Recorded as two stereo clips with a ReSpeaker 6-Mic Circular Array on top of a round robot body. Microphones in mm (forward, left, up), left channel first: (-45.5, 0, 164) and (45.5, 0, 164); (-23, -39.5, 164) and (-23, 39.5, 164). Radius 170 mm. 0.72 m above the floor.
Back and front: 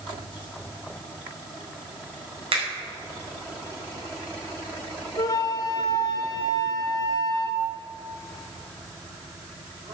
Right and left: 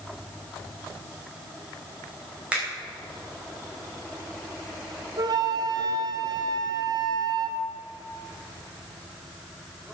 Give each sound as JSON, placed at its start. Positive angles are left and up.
{"t": 2.5, "sound": "a finger snap", "azimuth_deg": 15, "distance_m": 4.5}
{"t": 5.2, "sound": "a flute", "azimuth_deg": 125, "distance_m": 0.7}